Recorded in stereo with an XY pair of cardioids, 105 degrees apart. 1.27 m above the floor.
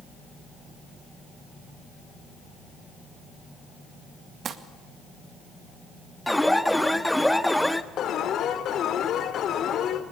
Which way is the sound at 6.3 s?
5° left.